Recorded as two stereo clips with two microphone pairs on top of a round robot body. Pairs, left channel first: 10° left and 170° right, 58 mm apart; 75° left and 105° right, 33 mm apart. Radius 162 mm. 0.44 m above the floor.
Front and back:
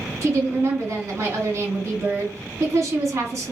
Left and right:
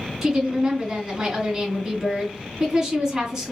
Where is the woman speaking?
165° right, 2.5 m.